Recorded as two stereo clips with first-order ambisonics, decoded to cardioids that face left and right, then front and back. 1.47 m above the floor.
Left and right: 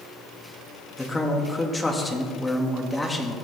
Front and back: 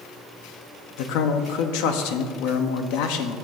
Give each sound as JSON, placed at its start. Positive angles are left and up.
{"t": 1.0, "sound": "a man speaking", "azimuth_deg": 5, "distance_m": 1.0}